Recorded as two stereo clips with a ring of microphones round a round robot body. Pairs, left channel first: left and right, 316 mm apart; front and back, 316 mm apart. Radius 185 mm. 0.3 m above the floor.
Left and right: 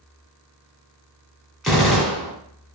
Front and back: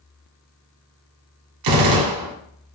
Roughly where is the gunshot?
Behind.